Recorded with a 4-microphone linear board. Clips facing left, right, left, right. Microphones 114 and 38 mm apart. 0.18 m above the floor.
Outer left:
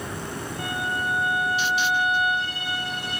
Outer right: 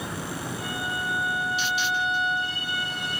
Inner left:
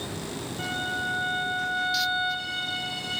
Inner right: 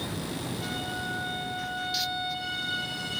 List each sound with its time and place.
0.6 s a violin: 70° left (ahead or behind), 9.5 m